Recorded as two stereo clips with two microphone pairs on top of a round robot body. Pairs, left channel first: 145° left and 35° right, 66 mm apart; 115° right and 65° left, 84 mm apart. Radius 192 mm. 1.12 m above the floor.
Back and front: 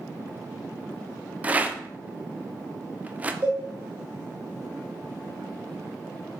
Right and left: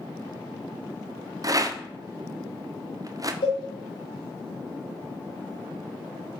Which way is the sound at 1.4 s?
30° left.